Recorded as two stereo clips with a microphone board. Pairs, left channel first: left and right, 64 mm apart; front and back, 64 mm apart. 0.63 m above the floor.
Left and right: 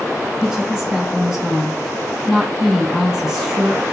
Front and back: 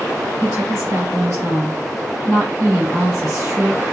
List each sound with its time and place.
0.4 s a woman speaking: 170° right, 2.0 m